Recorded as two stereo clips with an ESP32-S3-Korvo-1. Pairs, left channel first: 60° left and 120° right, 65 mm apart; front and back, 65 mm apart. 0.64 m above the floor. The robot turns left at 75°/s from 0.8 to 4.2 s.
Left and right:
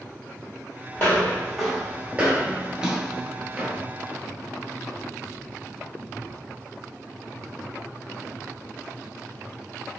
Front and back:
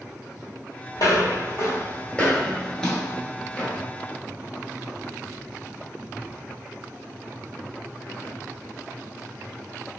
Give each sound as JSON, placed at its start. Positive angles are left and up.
{"t": 0.9, "sound": "footsteps", "azimuth_deg": 15, "distance_m": 1.2}